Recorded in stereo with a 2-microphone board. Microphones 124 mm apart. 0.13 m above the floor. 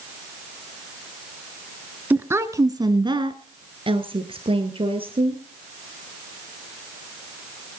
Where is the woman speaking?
15° right (ahead or behind), 1.1 m; by 5.4 s 45° right (ahead or behind), 2.5 m.